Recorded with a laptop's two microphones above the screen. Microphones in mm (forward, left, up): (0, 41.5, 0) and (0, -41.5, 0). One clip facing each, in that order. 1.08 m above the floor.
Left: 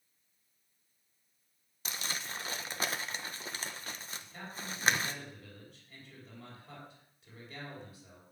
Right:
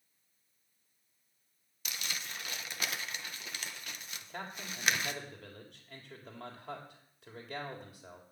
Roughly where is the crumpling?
Left.